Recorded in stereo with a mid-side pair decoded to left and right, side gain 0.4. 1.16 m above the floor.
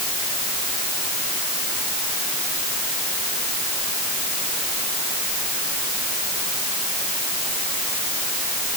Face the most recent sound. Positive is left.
No sound to turn to.